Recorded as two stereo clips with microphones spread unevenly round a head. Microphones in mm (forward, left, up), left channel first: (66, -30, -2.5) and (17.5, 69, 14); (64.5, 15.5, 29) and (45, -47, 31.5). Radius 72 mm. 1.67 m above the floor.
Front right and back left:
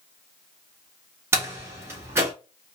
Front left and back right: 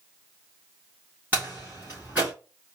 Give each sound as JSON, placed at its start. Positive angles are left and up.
{"t": 1.3, "sound": "a door slam", "azimuth_deg": 175, "distance_m": 1.4}